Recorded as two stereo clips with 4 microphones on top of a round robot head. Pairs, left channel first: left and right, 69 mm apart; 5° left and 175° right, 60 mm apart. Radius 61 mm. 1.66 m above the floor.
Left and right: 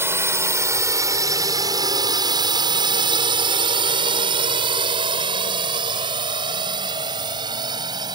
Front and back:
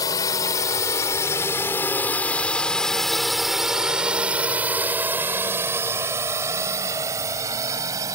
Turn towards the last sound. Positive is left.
turn(degrees=-125)